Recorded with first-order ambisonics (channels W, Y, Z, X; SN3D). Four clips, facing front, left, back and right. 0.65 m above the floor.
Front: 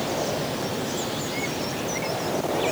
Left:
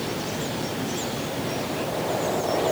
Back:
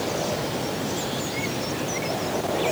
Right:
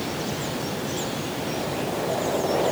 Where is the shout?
I don't hear a shout.